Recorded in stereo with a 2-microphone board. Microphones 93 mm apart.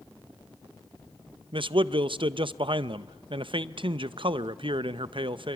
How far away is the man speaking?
About 0.5 m.